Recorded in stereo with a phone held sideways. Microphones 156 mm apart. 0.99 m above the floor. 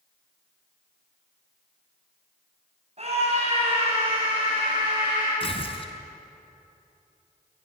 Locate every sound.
3.0 s a scream: 45° right (ahead or behind), 6.5 m; by 5.3 s 20° right (ahead or behind), 7 m
5.4 s tearing paper: 35° left (ahead or behind), 2.5 m